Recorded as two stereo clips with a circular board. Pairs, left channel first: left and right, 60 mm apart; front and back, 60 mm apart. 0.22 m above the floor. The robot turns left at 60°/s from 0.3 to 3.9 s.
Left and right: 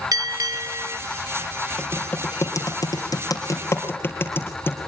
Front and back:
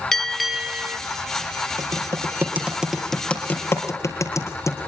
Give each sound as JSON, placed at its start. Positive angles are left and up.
{"t": 0.1, "sound": "a bell", "azimuth_deg": -85, "distance_m": 1.3}
{"t": 1.8, "sound": "typing on a keyboard", "azimuth_deg": 165, "distance_m": 4.0}